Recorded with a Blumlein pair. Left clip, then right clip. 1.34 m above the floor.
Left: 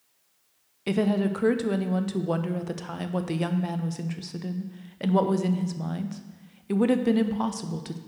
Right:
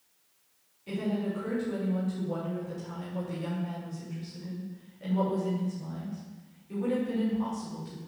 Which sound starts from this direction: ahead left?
A woman speaking, at 0.9 s.